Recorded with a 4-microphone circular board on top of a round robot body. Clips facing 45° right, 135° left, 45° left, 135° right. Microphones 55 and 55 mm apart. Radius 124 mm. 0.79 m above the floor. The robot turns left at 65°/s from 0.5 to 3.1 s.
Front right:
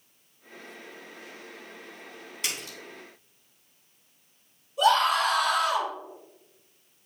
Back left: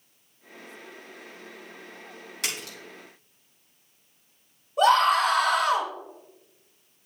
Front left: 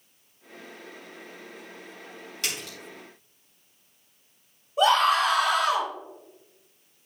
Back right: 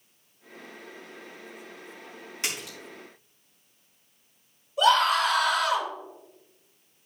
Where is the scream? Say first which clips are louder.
Back left 3 dB, front left 1 dB; 100° left, 4.5 m.